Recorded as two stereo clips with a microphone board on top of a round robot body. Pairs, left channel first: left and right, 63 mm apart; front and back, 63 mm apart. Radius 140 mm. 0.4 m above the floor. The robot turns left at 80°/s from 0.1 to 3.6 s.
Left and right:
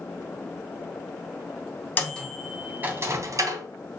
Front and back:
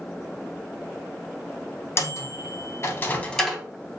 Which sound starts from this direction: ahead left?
A microwave, at 2.0 s.